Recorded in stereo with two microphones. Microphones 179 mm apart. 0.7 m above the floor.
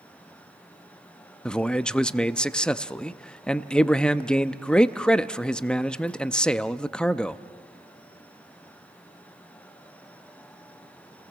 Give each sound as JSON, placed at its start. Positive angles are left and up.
{"t": 1.4, "sound": "a man speaking", "side_deg": 5, "distance_m": 0.6}